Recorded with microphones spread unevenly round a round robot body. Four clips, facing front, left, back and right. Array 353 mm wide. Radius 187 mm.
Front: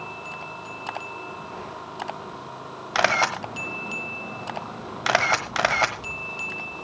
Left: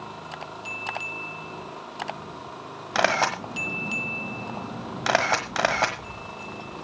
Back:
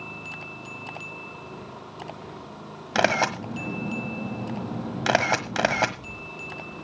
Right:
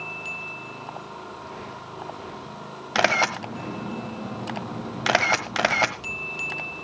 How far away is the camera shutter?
About 1.3 m.